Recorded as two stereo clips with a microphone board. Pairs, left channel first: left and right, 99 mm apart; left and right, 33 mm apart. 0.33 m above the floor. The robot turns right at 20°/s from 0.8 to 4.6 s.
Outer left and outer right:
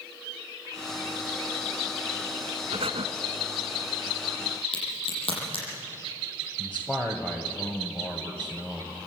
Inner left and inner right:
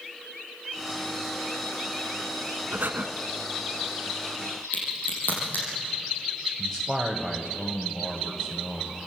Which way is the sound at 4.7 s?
75° left (ahead or behind).